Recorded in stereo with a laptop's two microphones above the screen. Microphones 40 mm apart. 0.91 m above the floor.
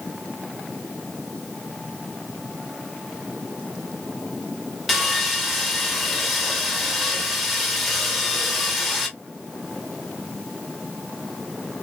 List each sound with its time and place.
4.9 s sawing: centre (ahead or behind), 0.9 m